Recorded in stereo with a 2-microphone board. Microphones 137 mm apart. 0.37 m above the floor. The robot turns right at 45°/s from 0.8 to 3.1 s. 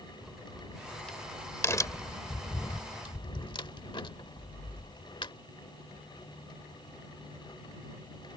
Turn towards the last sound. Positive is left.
turn(degrees=40)  # may be behind; listen again after turning